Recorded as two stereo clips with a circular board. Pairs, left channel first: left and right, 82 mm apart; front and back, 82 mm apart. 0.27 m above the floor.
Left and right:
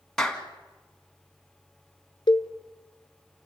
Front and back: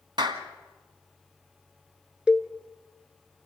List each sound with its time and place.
0.2 s a clap: 170° left, 1.8 m
2.3 s a cowbell: 105° left, 1.1 m